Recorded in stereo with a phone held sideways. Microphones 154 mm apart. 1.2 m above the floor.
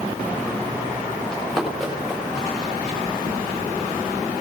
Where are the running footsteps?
5° left (ahead or behind), 6.5 m; by 3.0 s 10° right (ahead or behind), 8 m.